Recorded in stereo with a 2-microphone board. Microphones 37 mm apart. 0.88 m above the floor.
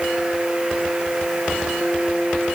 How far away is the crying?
No crying in this recording.